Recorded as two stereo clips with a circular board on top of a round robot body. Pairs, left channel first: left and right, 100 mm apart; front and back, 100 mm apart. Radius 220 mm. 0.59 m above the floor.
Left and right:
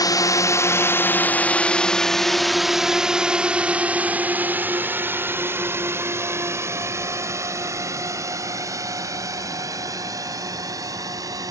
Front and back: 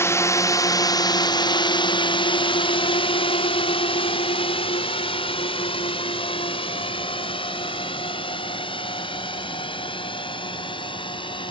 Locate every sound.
0.0 s a drone: 55° left; by 11.5 s 35° right